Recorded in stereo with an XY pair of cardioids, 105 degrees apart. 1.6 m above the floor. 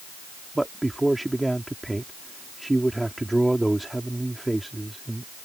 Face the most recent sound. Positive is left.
turn(degrees=-10)